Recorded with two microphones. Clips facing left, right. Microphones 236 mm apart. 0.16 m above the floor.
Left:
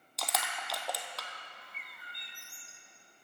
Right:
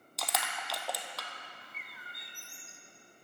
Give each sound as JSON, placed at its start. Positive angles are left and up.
{"t": 0.2, "sound": "crushing", "side_deg": 0, "distance_m": 1.0}
{"t": 1.6, "sound": "a bird", "side_deg": -5, "distance_m": 1.1}